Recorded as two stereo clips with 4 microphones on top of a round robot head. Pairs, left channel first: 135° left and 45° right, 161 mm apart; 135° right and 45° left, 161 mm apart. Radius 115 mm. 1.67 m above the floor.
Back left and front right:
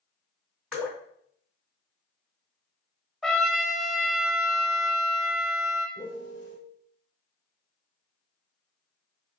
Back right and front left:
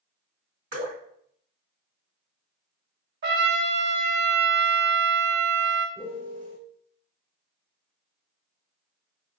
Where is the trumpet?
45° left, 0.5 m.